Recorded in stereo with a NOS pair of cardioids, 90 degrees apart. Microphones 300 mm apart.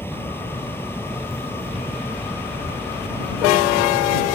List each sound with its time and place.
0.0 s a fan: 5° left